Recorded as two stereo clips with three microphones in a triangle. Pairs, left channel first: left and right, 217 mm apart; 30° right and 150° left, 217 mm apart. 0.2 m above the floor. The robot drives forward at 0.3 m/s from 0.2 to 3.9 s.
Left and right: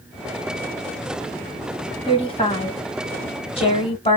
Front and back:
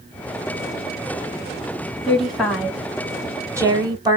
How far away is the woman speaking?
About 1.2 m.